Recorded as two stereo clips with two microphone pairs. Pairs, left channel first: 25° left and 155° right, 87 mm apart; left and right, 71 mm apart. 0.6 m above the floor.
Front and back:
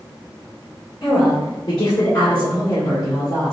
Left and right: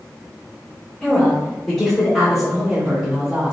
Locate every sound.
1.0 s a woman speaking: 25° left, 2.0 m; by 3.5 s 25° right, 2 m